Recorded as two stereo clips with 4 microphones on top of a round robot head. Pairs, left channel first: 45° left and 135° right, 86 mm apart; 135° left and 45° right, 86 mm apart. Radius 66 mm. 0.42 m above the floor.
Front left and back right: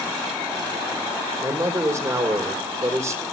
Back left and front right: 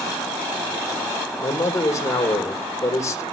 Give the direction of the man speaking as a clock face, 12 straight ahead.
6 o'clock.